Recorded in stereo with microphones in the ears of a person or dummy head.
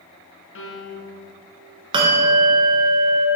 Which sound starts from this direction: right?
A bell, at 1.9 s.